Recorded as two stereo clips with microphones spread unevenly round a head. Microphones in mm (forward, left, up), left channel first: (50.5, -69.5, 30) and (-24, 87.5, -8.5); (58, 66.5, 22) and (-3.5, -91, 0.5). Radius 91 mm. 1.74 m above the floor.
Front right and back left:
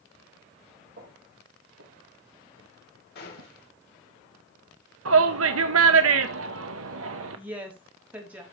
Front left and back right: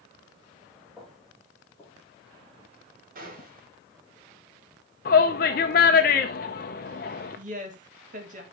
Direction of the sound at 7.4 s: 160° right.